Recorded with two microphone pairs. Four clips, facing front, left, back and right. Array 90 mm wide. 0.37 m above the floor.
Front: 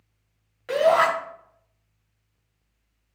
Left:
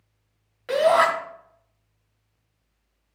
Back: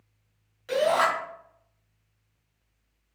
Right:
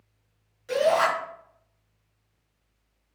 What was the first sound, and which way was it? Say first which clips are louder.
A shout: left 4 dB, front 4 dB; 60° left.